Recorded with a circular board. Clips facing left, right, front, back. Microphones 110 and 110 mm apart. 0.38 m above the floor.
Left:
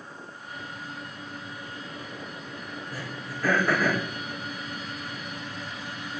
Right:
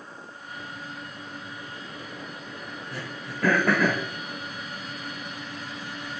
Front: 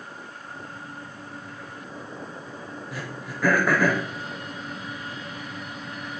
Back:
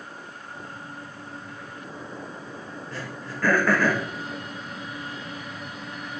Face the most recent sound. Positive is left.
turn(degrees=-80)